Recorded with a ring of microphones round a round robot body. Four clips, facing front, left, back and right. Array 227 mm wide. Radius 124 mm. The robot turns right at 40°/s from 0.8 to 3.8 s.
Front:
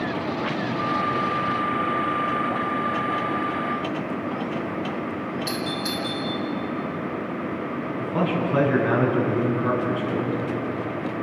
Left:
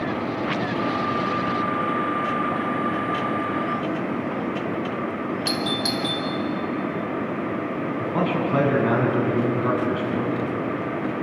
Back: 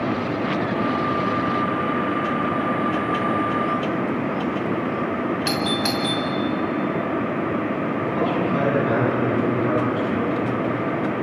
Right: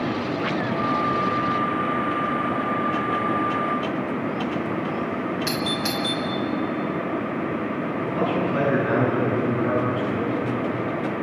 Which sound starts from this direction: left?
A man speaking, at 8.0 s.